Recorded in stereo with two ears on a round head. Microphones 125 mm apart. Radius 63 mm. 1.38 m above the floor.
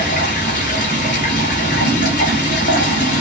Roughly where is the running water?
Left.